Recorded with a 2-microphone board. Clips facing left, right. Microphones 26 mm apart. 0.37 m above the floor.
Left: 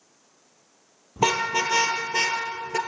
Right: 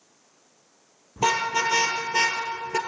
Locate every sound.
1.2 s a car horn: 20° left (ahead or behind), 4 m; by 2.8 s 10° right (ahead or behind), 2.5 m